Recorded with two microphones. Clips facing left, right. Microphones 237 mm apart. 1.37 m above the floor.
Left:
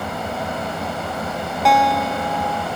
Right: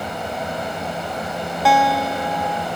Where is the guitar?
5° right (ahead or behind).